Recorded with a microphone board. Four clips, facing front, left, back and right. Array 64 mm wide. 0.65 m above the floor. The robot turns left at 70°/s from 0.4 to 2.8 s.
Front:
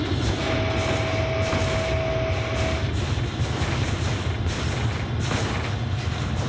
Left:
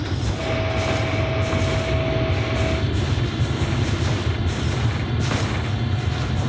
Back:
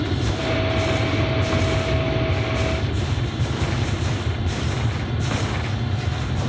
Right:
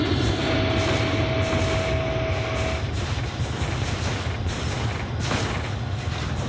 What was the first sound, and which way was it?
An aircraft, 95° right.